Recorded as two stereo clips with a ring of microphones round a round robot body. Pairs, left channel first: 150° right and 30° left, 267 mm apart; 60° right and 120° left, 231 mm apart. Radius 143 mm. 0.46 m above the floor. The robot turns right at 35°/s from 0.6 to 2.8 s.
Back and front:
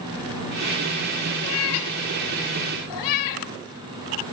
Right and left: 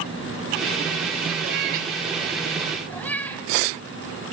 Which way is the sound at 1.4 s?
170° left.